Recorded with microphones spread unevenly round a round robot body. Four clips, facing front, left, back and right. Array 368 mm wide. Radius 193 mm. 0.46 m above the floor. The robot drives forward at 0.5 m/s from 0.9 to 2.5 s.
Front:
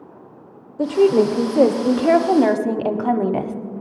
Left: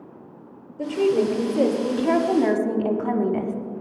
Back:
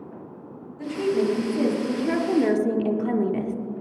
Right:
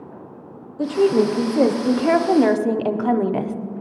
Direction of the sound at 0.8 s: 10° right.